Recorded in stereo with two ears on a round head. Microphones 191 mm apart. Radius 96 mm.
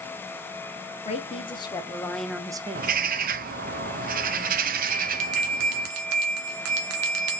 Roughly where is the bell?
Right.